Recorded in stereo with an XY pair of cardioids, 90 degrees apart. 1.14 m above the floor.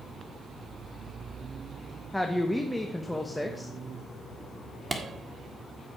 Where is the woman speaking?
10° left, 1.0 m.